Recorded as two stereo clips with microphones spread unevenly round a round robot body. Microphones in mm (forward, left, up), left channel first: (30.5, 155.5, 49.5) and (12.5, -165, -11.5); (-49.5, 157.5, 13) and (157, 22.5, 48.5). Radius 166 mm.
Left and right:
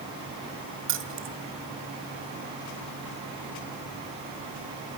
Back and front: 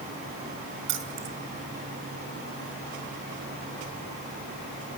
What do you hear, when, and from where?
0.9 s keys jangling: 50° right, 2 m